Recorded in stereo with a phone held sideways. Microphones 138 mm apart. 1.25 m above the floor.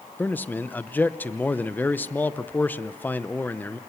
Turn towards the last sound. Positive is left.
turn(degrees=10)  # may be behind; listen again after turning